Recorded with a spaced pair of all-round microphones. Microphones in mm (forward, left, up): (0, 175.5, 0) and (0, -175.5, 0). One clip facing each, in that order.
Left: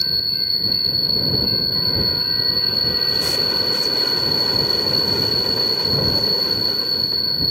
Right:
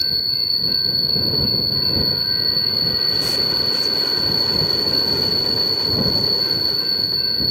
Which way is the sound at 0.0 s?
Centre (ahead or behind).